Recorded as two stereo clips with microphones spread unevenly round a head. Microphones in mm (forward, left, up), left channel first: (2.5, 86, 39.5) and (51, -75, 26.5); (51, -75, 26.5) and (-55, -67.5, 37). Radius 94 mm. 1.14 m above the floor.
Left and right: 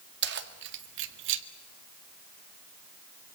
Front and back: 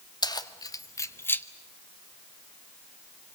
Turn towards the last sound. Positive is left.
turn(degrees=-80)